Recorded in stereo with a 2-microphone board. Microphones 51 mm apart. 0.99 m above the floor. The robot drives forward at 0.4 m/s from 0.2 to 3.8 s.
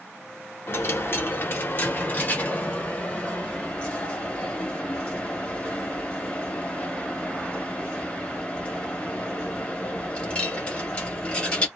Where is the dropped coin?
50° left (ahead or behind), 0.7 m; by 11.7 s 20° left (ahead or behind), 1.4 m.